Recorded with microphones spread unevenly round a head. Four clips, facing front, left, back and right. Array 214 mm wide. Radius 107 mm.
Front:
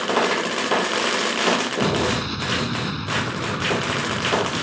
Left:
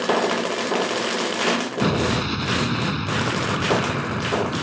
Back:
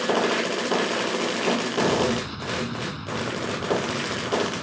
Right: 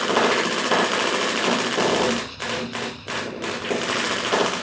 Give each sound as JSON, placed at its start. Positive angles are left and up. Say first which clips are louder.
{"t": 1.8, "sound": "an explosion", "louder": "left 1 dB, front 1 dB", "azimuth_deg": 60}